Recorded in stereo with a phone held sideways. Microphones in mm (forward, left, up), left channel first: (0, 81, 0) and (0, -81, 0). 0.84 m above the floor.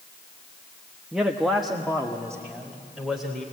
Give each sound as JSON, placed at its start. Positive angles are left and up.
{"t": 1.1, "sound": "a man speaking", "side_deg": -5, "distance_m": 1.0}